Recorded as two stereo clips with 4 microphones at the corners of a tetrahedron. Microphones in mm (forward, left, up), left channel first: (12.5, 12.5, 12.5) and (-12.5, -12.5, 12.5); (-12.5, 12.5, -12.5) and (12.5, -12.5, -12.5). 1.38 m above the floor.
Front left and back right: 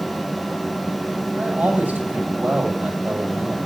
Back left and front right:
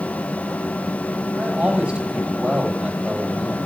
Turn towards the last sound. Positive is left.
turn(degrees=-105)